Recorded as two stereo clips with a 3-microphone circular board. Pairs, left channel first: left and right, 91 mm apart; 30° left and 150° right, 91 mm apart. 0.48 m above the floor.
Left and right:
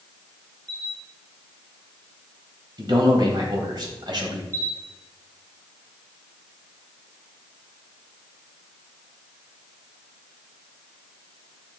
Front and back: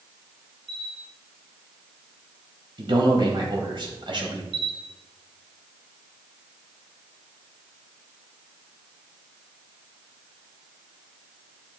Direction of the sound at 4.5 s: 140° right.